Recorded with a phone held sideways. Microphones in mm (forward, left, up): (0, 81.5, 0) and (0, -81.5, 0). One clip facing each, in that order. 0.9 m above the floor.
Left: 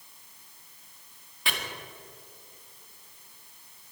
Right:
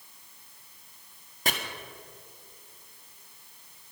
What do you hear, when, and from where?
1.4 s chopping: 45° right (ahead or behind), 1.6 m